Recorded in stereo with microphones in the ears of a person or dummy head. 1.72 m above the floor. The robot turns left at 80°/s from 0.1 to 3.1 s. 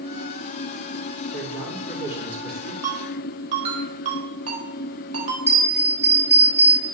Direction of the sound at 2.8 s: 20° right (ahead or behind).